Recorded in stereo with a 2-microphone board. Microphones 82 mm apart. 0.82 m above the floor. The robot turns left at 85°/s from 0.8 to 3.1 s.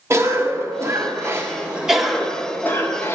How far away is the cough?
About 0.6 m.